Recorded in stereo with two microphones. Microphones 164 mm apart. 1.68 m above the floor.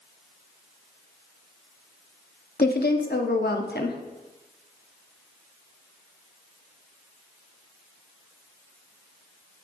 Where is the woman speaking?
75° left (ahead or behind), 0.8 m.